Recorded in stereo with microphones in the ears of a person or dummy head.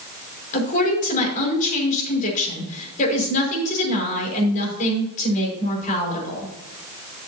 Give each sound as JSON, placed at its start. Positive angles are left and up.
{"t": 0.5, "sound": "a woman speaking", "side_deg": 40, "distance_m": 5.5}